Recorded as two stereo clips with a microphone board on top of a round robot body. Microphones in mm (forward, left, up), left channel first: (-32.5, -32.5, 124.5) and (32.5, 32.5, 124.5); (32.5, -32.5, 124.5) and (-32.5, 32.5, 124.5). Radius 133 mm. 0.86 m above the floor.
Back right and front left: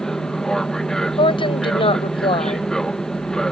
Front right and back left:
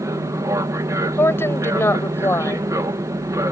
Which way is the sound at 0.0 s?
145° left.